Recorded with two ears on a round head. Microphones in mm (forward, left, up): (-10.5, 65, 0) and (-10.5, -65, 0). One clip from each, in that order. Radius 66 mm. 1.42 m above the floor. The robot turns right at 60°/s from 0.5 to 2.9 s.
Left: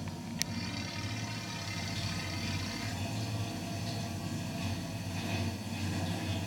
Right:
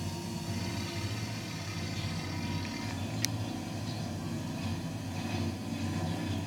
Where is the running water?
50° right, 1.1 m; by 6.5 s 95° left, 1.1 m.